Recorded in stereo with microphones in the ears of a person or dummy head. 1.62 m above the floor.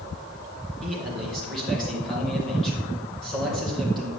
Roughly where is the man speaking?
Centre.